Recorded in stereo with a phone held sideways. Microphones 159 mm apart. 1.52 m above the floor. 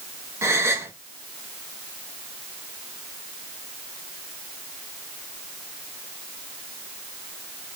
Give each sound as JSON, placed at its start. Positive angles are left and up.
{"t": 0.4, "sound": "a gasp", "side_deg": -15, "distance_m": 0.8}